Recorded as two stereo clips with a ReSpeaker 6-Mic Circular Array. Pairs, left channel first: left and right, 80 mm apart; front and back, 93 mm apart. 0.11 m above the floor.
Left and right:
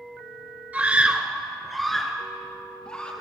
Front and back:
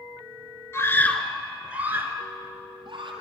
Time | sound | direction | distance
0.7 | a scream | 35° right | 1.8 m